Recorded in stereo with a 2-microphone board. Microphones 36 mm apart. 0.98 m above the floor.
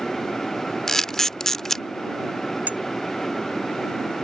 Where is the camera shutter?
10° left (ahead or behind).